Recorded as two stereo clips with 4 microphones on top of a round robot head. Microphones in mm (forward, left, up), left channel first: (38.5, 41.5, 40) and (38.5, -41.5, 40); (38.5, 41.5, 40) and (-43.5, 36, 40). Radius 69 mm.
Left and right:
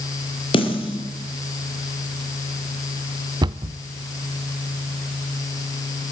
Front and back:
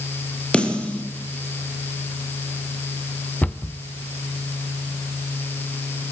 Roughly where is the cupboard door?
Right.